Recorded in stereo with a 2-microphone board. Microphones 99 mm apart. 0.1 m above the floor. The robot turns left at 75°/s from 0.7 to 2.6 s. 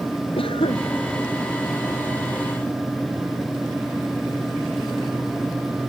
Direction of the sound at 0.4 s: 65° left (ahead or behind).